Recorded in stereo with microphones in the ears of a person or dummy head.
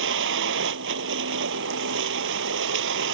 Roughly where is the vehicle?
Right.